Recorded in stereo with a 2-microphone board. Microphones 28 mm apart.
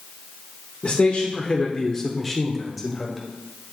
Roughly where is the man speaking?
Left.